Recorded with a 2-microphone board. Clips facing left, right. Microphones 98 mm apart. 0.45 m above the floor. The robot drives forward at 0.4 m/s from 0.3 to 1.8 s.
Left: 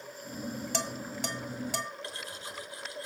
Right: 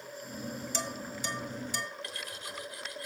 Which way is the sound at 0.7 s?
70° left (ahead or behind).